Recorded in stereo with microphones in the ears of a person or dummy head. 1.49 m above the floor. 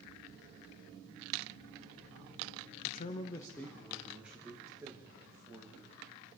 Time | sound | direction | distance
2.8 | a man speaking | 45° left (ahead or behind) | 0.6 m